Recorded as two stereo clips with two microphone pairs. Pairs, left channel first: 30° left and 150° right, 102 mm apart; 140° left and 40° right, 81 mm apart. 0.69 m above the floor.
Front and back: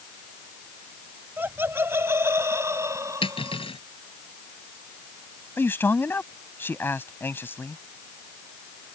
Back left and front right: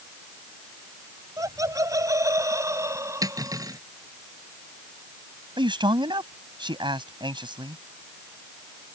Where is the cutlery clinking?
Straight ahead.